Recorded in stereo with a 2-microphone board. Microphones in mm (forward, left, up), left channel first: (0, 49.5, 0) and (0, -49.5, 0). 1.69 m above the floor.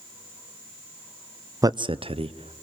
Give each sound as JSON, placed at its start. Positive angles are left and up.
{"t": 1.6, "sound": "a man speaking", "side_deg": -35, "distance_m": 0.6}